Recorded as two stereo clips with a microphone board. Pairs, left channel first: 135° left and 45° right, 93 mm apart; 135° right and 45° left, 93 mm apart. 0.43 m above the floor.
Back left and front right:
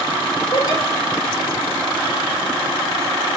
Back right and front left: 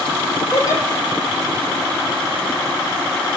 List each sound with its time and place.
0.5 s a giggle: 170° left, 4.5 m